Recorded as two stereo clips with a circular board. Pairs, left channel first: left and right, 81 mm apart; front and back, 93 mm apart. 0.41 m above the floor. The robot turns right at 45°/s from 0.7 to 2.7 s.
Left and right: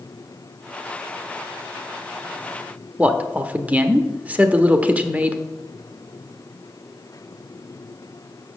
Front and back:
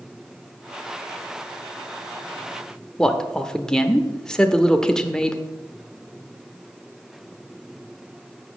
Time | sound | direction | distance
3.0 | a man speaking | 65° right | 0.8 m